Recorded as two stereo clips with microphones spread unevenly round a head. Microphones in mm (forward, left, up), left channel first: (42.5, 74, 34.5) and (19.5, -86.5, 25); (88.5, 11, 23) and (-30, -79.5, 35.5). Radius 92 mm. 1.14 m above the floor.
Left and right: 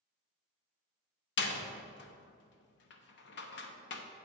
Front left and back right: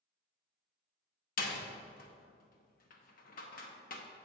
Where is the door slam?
75° left, 0.8 m.